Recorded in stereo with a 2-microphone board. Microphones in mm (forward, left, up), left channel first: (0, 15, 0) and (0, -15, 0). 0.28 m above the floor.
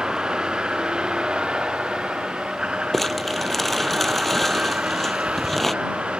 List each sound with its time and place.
0.0 s a vehicle: 25° right (ahead or behind); by 6.2 s 40° right (ahead or behind)
2.9 s crumpling: 10° left (ahead or behind)